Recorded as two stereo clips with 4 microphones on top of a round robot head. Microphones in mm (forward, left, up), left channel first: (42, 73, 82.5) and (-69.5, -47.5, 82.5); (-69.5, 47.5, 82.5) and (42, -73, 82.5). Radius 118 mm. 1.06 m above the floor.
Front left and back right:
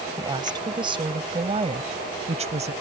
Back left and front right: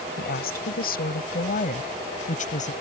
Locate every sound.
0.2 s a woman speaking: 160° left; by 2.7 s straight behind